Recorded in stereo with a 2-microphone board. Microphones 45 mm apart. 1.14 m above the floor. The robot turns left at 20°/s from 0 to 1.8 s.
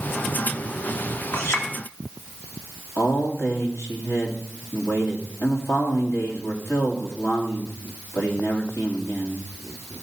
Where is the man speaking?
75° left (ahead or behind), 2.5 m.